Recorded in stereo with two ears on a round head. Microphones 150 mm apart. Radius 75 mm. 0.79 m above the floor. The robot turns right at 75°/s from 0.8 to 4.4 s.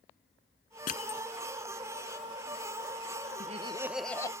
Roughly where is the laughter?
Ahead right.